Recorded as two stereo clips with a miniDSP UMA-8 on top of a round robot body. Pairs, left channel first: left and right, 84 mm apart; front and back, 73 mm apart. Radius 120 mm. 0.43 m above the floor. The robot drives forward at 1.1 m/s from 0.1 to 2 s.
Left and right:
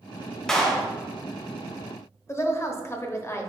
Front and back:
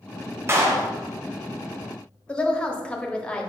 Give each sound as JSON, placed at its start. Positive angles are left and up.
{"t": 0.5, "sound": "a clap", "azimuth_deg": 170, "distance_m": 0.8}
{"t": 2.3, "sound": "a woman speaking", "azimuth_deg": 65, "distance_m": 0.8}